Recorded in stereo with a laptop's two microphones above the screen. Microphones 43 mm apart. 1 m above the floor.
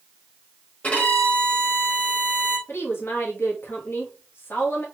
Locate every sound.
0.8 s a violin: 35° left (ahead or behind), 1.0 m
2.7 s a woman speaking: 65° left (ahead or behind), 1.2 m